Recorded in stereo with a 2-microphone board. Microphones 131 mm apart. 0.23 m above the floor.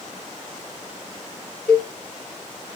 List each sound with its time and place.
1.7 s a cowbell: 60° right (ahead or behind), 2.5 m